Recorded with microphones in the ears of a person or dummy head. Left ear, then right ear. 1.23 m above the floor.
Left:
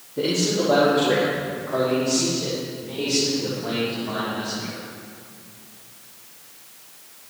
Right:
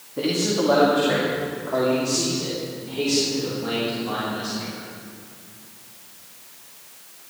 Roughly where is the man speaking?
Right.